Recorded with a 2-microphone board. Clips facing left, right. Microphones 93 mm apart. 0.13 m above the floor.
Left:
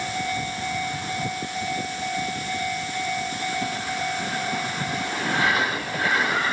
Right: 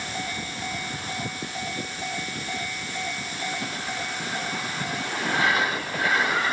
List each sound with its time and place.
Only background noise.